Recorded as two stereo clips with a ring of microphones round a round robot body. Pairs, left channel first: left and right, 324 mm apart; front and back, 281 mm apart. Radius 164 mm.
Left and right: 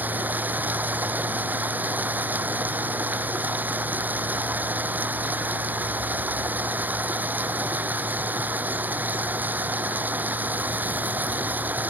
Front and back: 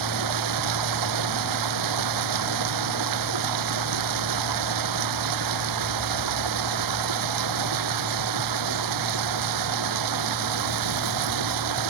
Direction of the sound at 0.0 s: 175° right.